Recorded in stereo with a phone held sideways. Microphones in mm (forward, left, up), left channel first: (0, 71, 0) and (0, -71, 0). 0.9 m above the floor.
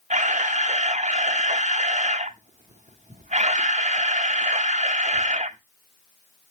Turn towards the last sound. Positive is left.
turn(degrees=-55)  # may be behind; listen again after turning